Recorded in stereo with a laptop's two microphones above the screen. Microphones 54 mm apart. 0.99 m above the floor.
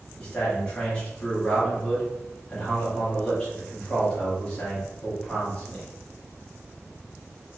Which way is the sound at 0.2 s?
15° left (ahead or behind).